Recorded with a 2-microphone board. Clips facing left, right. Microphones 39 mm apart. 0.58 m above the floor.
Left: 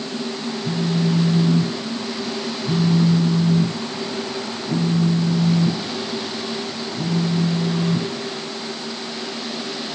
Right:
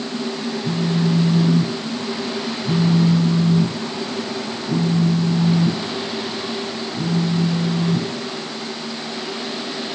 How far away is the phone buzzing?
About 2 m.